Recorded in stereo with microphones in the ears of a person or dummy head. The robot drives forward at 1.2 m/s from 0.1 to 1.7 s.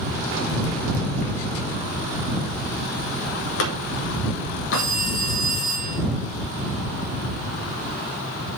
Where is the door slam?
65° left (ahead or behind), 1.8 m.